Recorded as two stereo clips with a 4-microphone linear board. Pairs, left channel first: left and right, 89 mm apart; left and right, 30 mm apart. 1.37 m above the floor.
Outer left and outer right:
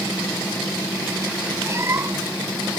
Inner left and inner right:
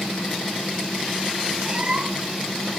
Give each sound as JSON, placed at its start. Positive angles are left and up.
{"t": 1.6, "sound": "a cat meowing", "side_deg": -30}